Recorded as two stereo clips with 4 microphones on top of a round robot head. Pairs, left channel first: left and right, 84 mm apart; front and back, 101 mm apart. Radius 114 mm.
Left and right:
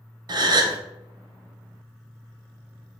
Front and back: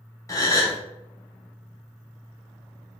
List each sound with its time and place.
0.3 s a gasp: 55° right, 0.6 m